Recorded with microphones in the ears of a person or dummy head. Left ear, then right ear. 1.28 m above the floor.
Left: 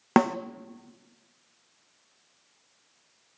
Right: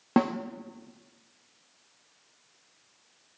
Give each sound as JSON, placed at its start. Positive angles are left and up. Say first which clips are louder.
{"t": 0.2, "sound": "a snare drum", "louder": "left 4 dB", "side_deg": 55, "distance_m": 1.1}